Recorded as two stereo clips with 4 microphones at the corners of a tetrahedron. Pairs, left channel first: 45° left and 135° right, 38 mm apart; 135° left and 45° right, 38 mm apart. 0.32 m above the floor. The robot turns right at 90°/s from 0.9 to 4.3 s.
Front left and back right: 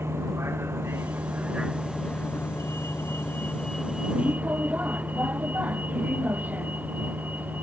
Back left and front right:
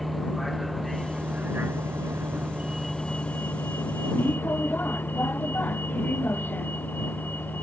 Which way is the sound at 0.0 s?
135° right.